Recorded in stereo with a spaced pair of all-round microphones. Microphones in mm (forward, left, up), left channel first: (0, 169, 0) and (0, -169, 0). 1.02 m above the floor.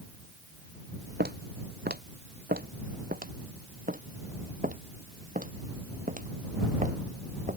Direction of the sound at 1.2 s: 30° right (ahead or behind).